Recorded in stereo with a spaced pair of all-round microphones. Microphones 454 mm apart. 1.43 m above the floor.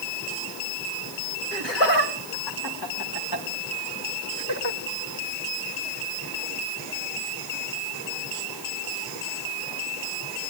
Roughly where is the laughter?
Left.